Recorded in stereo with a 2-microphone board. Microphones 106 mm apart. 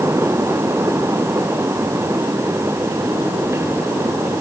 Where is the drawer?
I don't hear a drawer.